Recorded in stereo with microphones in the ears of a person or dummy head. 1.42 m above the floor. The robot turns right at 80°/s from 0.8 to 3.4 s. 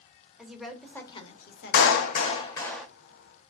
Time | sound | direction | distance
0.4 | a woman speaking | straight ahead | 0.8 m
1.7 | a clap | 90° left | 0.6 m